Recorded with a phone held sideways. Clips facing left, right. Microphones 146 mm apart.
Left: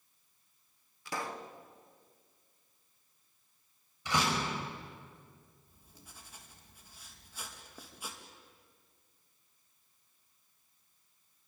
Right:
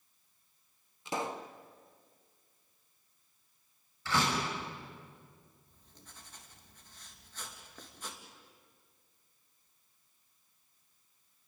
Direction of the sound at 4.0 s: 15° left (ahead or behind).